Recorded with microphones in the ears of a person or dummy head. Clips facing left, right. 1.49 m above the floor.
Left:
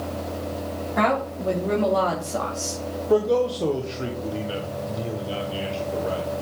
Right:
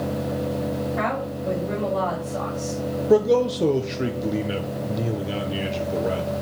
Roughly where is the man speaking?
Right.